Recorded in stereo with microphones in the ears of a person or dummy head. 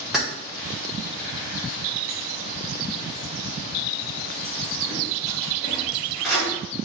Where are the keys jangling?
5° left (ahead or behind), 1.1 m.